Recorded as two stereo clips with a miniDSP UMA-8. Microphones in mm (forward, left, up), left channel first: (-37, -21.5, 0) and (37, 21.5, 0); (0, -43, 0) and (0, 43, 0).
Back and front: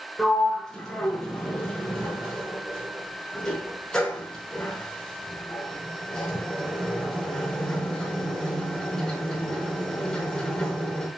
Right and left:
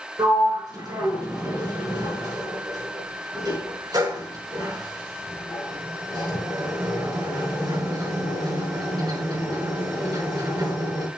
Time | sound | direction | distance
0.2 | a sliding door | 130° left | 5 m